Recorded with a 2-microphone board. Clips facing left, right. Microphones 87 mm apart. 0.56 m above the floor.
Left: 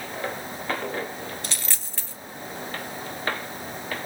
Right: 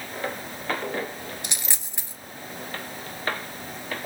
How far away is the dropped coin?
About 0.6 m.